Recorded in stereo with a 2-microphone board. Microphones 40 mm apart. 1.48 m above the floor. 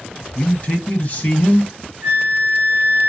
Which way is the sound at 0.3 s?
40° left (ahead or behind).